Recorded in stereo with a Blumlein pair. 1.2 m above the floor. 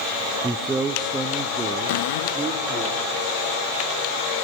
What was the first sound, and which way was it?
A man speaking, 10° right.